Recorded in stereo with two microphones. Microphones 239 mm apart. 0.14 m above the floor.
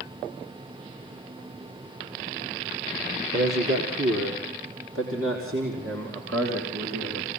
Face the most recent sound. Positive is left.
turn(degrees=-80)